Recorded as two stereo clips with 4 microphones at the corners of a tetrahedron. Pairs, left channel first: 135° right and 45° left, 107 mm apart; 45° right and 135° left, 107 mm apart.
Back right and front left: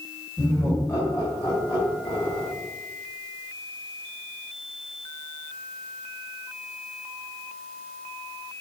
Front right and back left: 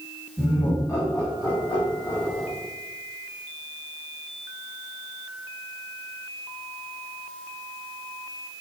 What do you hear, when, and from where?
0.4 s laughter: 75° right, 1.4 m; by 2.5 s 100° right, 4 m